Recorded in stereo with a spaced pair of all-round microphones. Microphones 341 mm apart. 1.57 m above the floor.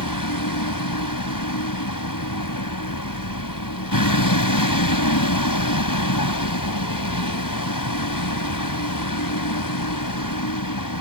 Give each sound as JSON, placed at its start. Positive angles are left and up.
{"t": 0.0, "sound": "a vehicle", "side_deg": 70}